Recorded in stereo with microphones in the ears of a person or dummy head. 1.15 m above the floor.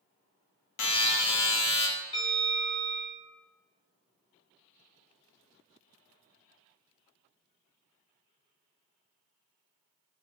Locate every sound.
0.8 s a buzzer: 70° left (ahead or behind), 0.7 m
2.1 s a bell: 40° left (ahead or behind), 1.2 m